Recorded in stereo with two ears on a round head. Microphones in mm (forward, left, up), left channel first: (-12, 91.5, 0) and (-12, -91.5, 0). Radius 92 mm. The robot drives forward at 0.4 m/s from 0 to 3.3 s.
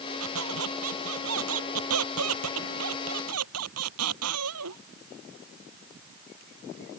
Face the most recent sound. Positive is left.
turn(degrees=-80)